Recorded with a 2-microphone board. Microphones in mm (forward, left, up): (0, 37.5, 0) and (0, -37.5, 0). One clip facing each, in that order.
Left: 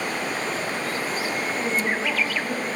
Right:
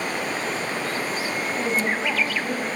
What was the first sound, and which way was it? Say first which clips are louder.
A woman speaking: right 2 dB; 15° right (ahead or behind).